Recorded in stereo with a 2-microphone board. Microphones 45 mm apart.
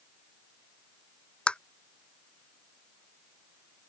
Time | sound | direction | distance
1.5 | tapping | 25° left (ahead or behind) | ?